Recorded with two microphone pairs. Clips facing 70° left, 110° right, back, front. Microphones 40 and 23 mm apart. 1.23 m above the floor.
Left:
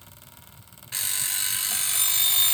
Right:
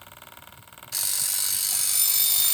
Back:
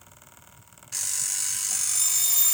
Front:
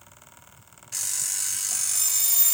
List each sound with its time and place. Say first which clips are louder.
0.9 s an alarm clock: left 2 dB, even; 90° left, 0.5 m